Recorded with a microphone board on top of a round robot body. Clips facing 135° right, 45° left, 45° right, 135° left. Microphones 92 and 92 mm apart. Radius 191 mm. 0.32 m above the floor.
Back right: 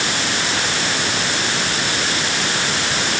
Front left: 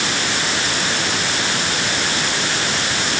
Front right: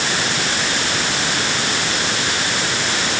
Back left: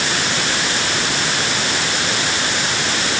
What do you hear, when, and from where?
Only background noise.